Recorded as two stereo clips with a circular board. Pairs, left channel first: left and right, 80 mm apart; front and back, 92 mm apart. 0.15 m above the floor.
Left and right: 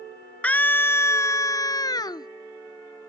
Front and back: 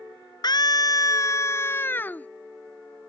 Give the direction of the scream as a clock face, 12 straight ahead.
11 o'clock.